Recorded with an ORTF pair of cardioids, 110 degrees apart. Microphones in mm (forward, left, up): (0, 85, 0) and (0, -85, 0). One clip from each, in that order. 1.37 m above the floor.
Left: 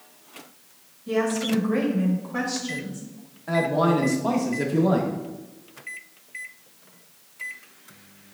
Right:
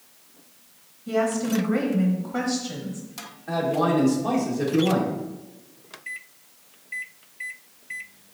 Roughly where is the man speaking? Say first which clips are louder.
Left 1 dB; ahead.